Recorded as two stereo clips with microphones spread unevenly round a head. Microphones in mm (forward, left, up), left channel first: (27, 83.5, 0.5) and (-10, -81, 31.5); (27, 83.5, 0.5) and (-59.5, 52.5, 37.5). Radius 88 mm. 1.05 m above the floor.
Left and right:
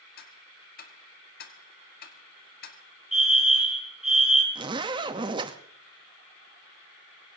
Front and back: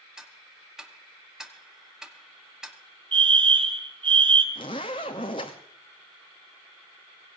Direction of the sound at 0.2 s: 115° left.